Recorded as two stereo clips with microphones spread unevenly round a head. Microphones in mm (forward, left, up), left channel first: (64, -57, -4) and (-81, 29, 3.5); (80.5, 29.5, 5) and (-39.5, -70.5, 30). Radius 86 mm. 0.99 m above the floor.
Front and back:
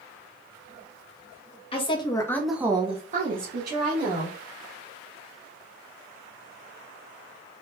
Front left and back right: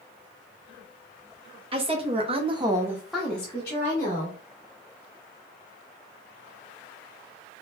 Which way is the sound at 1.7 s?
85° right.